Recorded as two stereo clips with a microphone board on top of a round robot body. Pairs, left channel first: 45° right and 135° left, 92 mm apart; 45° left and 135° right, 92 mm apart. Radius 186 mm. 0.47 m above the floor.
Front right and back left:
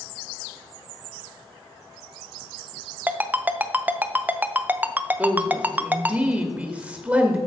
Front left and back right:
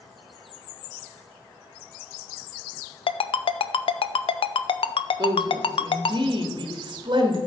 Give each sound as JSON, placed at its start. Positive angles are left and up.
{"t": 3.1, "sound": "a ringtone", "azimuth_deg": 65, "distance_m": 0.6}
{"t": 5.2, "sound": "a woman speaking", "azimuth_deg": -155, "distance_m": 1.2}